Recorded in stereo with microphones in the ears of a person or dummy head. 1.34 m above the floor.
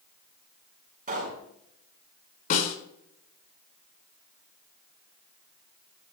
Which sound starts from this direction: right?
A pop, at 1.1 s.